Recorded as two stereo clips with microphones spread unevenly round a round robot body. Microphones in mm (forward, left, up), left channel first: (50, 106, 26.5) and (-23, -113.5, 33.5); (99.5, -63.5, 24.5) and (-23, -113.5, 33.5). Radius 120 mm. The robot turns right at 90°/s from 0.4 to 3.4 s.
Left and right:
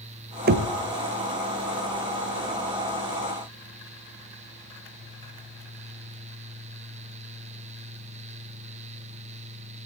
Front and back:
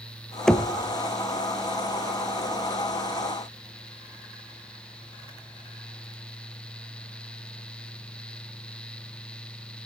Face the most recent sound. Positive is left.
turn(degrees=-160)